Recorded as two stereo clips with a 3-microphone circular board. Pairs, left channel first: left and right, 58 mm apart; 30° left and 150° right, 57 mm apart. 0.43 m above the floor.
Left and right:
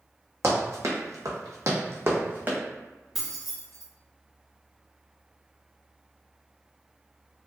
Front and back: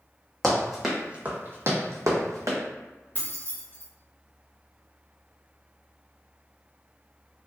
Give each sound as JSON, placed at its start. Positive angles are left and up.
{"t": 0.4, "sound": "running footsteps", "azimuth_deg": -55, "distance_m": 1.1}
{"t": 3.1, "sound": "keys jangling", "azimuth_deg": -5, "distance_m": 0.8}